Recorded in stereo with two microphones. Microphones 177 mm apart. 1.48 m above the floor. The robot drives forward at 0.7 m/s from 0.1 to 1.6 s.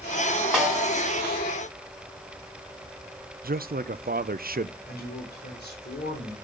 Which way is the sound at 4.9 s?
70° left (ahead or behind).